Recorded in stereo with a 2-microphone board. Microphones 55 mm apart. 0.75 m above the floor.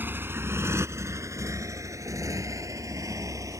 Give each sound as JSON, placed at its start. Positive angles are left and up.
{"t": 0.0, "sound": "a motorcycle", "side_deg": -40}